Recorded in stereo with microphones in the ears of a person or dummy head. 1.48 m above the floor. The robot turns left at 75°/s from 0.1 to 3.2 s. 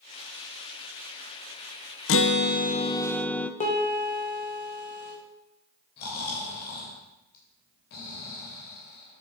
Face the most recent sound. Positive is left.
turn(degrees=55)  # may be behind; listen again after turning